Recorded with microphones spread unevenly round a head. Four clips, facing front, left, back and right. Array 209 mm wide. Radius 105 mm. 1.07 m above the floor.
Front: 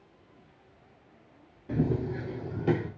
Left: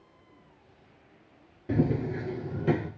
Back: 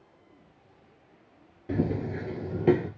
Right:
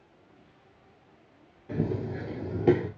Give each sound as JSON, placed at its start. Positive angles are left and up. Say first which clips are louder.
{"t": 1.7, "sound": "running footsteps", "louder": "left 4 dB, even", "azimuth_deg": 100, "distance_m": 1.2}